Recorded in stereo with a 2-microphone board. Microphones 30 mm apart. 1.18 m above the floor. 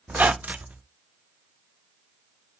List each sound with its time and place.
0.1 s a squeak: 65° right (ahead or behind), 0.5 m